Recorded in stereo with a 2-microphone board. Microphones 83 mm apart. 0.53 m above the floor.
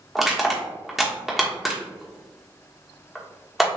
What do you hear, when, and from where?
0.1 s crushing: centre (ahead or behind), 1.0 m